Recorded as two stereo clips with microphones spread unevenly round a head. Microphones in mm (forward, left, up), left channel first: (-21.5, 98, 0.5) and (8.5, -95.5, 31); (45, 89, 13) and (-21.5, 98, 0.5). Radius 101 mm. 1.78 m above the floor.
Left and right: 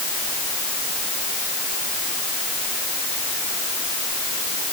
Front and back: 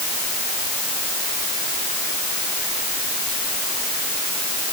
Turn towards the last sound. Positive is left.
No sound to turn to.